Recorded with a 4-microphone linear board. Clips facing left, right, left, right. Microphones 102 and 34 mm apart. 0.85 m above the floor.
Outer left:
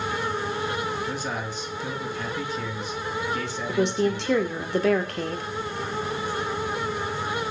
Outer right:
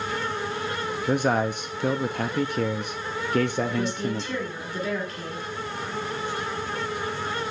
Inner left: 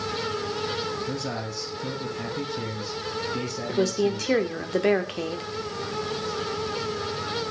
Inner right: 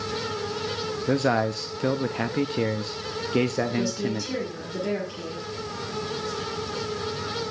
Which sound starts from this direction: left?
A woman speaking, at 3.7 s.